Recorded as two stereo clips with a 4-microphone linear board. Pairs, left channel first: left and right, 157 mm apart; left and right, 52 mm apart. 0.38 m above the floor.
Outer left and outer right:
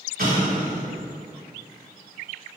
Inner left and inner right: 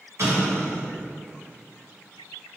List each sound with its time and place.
0.2 s an explosion: 70° right (ahead or behind), 1.1 m